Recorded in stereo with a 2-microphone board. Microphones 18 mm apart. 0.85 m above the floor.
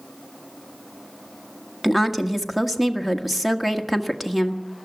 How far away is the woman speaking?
About 1.4 m.